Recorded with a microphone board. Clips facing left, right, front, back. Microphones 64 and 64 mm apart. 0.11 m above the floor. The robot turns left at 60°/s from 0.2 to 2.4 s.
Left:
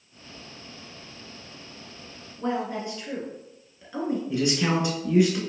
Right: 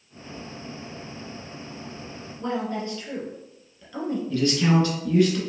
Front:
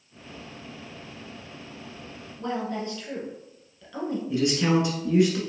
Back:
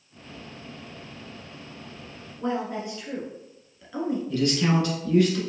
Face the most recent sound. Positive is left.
turn(degrees=45)